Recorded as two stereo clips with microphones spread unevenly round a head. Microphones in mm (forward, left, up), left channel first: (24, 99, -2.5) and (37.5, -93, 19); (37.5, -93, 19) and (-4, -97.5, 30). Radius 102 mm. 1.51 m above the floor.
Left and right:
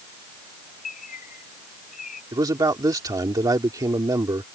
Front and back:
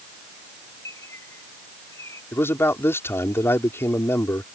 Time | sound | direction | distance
0.8 | a bird | 45° left | ?
2.3 | a man speaking | 15° right | ?